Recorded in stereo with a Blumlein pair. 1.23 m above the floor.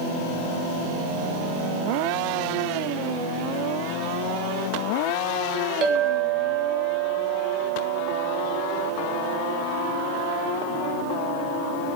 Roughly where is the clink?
Ahead right.